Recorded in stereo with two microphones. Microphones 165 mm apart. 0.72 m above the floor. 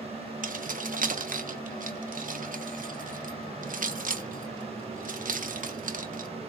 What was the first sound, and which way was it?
Keys jangling, 55° right (ahead or behind).